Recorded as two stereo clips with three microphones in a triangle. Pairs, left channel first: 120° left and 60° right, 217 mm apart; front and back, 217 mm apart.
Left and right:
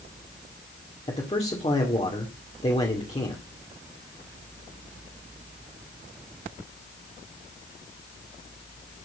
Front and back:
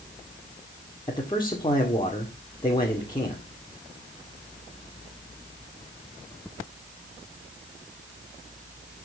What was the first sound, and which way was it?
A man speaking, 65° left.